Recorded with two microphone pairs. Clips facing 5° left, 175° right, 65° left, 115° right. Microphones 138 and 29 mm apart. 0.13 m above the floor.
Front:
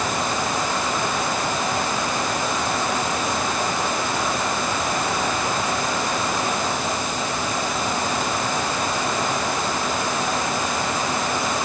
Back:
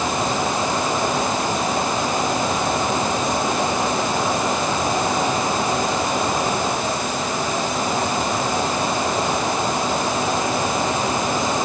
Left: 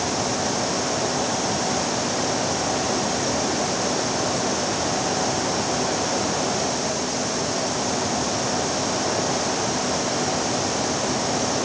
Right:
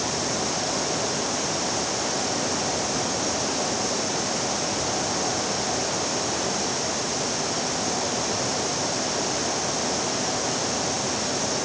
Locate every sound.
Only background noise.